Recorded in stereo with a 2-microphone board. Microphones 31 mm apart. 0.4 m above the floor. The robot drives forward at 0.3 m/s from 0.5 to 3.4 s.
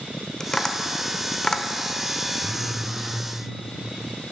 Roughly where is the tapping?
Centre.